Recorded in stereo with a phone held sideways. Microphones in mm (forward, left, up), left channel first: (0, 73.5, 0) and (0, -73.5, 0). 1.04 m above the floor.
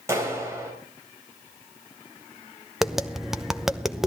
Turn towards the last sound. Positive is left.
turn(degrees=0)  # may be behind; listen again after turning